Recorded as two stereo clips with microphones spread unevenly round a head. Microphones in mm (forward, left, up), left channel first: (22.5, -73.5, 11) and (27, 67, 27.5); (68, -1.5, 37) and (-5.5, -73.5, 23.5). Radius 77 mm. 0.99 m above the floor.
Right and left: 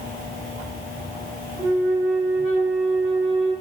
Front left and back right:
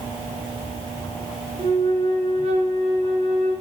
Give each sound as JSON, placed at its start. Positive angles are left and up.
{"t": 1.6, "sound": "a flute", "azimuth_deg": 165, "distance_m": 0.6}